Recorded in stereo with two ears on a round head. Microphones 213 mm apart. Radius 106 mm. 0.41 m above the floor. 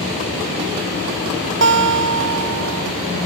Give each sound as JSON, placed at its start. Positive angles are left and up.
{"t": 1.6, "sound": "a guitar", "side_deg": -50, "distance_m": 0.9}